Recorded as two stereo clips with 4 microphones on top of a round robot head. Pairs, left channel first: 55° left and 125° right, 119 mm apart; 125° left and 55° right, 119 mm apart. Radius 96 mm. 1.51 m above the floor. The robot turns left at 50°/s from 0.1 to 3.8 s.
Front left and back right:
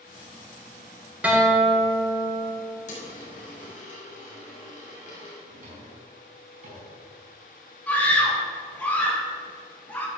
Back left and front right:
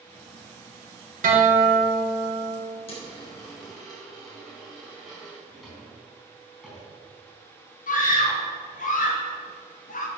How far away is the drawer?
About 4 m.